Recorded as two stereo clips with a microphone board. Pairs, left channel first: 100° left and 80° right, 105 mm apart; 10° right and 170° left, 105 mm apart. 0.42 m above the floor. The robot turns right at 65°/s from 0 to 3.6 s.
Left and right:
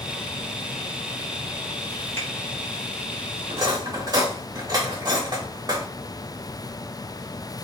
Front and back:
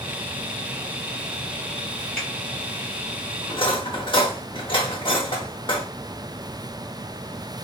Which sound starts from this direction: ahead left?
A finger snap, at 2.2 s.